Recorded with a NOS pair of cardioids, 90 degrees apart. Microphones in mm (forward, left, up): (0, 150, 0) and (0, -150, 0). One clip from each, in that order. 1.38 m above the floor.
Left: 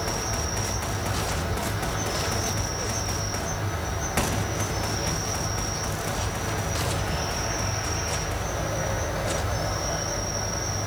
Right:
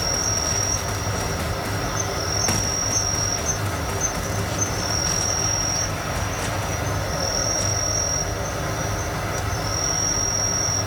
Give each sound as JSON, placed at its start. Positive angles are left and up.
{"t": 0.0, "sound": "an insect", "azimuth_deg": -40, "distance_m": 3.0}